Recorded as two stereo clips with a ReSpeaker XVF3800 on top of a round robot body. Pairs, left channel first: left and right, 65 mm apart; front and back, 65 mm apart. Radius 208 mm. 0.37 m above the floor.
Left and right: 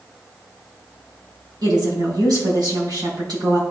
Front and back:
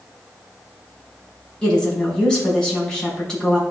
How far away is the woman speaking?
About 4 m.